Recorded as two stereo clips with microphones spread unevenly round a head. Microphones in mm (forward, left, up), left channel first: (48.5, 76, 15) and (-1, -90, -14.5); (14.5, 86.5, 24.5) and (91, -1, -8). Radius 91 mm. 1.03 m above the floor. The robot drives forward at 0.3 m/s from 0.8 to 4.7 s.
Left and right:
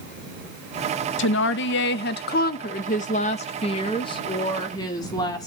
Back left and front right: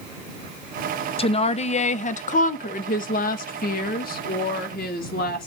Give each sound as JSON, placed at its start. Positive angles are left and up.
{"t": 1.2, "sound": "a woman speaking", "azimuth_deg": 85, "distance_m": 0.8}